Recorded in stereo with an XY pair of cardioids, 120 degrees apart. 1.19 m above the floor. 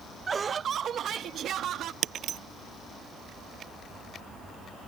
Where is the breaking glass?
55° right.